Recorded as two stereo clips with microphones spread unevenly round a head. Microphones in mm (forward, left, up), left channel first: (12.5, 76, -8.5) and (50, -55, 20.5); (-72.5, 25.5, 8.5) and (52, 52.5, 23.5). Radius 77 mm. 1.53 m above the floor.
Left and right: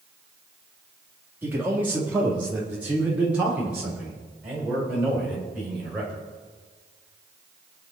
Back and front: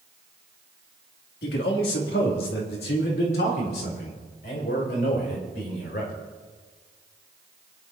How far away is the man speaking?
About 2.5 m.